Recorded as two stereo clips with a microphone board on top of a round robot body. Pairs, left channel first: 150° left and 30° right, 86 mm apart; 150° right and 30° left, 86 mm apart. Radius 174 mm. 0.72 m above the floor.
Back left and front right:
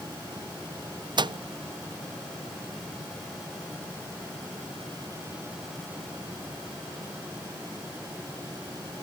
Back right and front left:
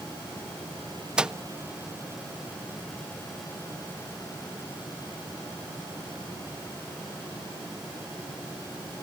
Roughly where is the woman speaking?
No woman speaking in this recording.